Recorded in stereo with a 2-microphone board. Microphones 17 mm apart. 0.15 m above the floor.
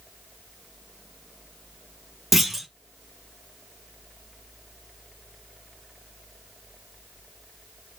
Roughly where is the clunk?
Centre.